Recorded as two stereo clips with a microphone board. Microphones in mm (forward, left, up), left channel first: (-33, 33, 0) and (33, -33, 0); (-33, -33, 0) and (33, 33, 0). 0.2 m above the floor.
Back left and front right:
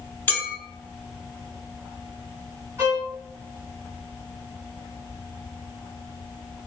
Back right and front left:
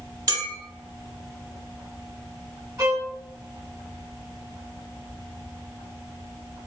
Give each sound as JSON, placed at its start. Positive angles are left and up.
{"t": 0.3, "sound": "a clink", "azimuth_deg": 75, "distance_m": 1.0}
{"t": 2.8, "sound": "a violin", "azimuth_deg": 0, "distance_m": 1.4}